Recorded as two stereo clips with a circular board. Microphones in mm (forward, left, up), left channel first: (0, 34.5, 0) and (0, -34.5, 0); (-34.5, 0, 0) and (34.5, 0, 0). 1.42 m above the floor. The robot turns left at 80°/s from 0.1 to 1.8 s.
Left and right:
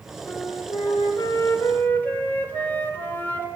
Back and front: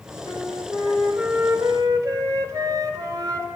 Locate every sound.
0.3 s a flute: 150° left, 3.5 m; by 3.5 s 25° left, 3.5 m